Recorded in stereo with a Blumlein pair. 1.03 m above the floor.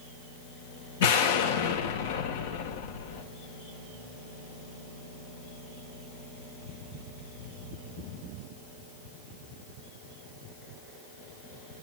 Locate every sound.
1.0 s an explosion: 55° left, 2.5 m